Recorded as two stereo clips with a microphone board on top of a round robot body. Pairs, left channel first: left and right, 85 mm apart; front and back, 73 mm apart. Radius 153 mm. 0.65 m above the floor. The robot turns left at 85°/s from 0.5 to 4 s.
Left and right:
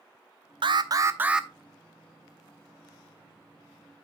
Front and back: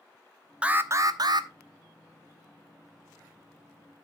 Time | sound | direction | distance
0.6 | an alarm | 105° right | 1.0 m